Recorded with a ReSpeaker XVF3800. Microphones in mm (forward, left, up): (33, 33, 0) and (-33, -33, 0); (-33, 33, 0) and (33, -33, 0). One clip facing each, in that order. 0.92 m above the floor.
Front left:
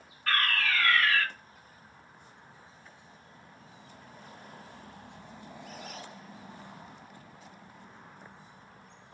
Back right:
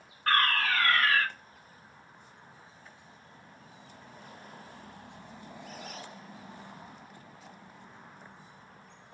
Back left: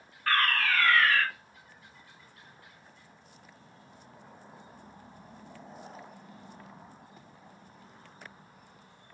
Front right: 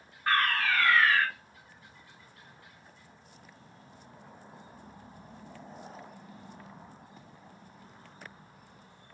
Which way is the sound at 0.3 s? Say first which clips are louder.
Back right 3 dB, even; 110° right.